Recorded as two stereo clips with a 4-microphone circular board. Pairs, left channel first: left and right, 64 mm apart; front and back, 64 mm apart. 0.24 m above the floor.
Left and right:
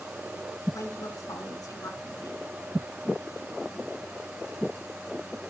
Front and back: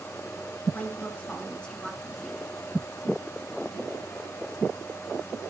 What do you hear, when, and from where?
0.7 s a woman speaking: 60° left, 2.5 m; by 2.4 s 90° left, 2.5 m